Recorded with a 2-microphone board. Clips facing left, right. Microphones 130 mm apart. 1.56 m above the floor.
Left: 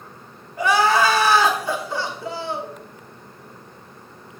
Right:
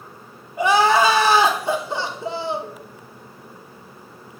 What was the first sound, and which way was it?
Crying, 25° right (ahead or behind).